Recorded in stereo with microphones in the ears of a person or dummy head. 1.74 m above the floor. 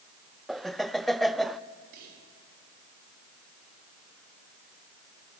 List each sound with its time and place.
0.5 s laughter: 5° right (ahead or behind), 0.5 m
1.9 s whispering: 60° right (ahead or behind), 5 m